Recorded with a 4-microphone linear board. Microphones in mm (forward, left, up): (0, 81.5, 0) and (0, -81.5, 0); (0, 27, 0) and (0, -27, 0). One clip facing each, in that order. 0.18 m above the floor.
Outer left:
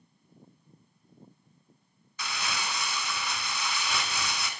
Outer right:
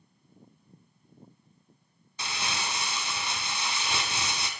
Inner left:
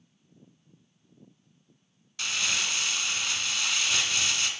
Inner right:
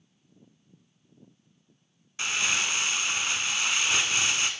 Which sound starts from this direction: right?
Crumpling, at 2.2 s.